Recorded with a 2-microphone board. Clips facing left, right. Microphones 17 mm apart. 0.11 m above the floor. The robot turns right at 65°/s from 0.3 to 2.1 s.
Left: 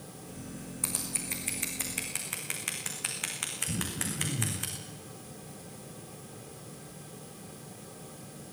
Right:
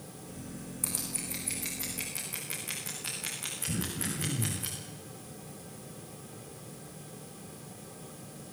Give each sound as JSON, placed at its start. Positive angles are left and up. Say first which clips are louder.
{"t": 0.8, "sound": "scissors", "louder": "left 2 dB", "side_deg": 25, "distance_m": 6.5}
{"t": 3.7, "sound": "throat clearing", "louder": "even", "side_deg": -15, "distance_m": 3.5}